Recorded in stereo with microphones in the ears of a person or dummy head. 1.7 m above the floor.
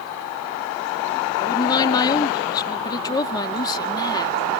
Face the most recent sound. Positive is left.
turn(degrees=30)  # may be behind; listen again after turning